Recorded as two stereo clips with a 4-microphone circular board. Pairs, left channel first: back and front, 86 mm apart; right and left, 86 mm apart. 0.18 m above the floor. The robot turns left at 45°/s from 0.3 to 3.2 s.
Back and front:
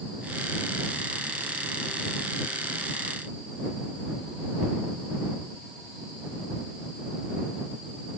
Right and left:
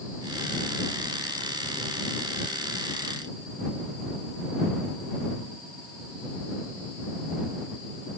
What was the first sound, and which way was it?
Only background noise.